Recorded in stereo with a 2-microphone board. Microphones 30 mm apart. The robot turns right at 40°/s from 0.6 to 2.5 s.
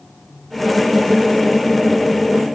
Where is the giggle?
No giggle in this recording.